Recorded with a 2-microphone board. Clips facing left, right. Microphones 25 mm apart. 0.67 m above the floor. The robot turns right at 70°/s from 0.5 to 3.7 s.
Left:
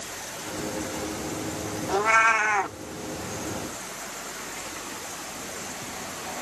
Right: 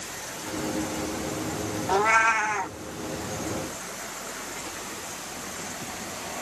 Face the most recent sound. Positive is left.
turn(degrees=105)